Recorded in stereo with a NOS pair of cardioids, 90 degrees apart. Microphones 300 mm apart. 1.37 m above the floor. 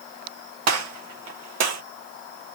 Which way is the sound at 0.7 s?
60° right.